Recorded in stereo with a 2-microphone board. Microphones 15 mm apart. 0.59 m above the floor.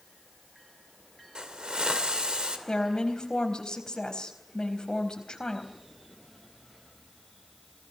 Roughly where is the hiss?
Right.